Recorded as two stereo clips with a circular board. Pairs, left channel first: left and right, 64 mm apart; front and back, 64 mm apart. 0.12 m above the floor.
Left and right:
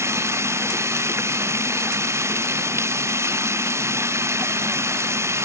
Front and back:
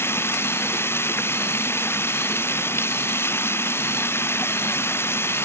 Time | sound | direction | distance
0.0 | running water | 50° right | ?